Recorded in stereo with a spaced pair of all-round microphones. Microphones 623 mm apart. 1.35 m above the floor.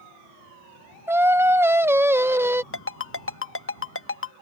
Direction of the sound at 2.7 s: 20° left (ahead or behind).